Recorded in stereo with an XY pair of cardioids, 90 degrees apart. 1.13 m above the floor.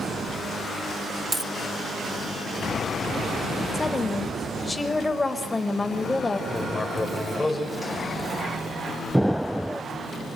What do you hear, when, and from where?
1.3 s a dropped coin: 15° right, 1.3 m
3.7 s a woman speaking: 20° left, 5 m
6.5 s writing: 20° left, 5.5 m
9.1 s an explosion: straight ahead, 0.7 m